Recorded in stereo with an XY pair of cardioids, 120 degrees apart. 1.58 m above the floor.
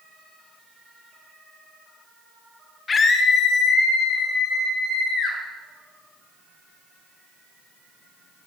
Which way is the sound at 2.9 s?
30° left.